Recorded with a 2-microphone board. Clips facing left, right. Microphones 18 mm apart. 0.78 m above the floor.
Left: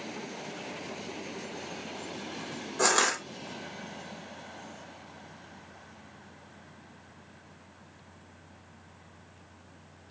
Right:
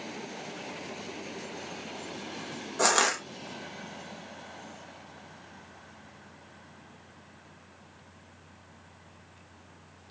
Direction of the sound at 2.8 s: 10° right (ahead or behind).